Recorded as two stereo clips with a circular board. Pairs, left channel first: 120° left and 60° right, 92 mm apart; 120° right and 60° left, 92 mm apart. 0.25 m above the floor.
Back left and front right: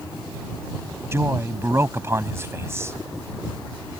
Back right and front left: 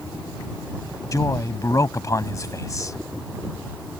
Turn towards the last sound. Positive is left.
turn(degrees=-100)